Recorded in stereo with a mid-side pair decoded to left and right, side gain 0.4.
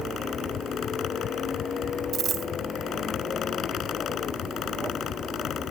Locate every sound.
0.0 s a fan: 70° left
2.1 s a dropped coin: 60° right